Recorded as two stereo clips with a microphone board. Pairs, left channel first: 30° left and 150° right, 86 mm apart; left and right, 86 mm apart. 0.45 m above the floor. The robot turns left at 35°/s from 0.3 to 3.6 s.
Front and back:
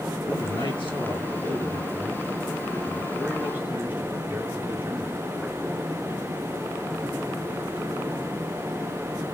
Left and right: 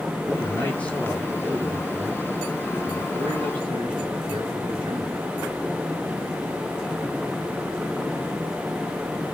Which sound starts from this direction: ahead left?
A man speaking, at 0.3 s.